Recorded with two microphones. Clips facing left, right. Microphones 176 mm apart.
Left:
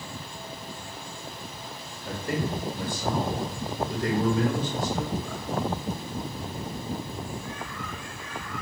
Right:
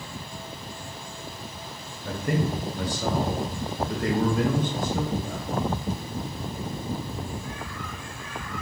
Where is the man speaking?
50° right (ahead or behind), 1.3 m; by 5.5 s 45° right (ahead or behind), 2 m.